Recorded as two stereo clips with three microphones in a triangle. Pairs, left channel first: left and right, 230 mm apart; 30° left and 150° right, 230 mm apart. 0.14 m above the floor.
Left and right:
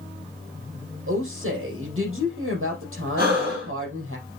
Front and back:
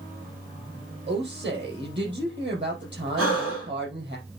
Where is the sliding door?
No sliding door in this recording.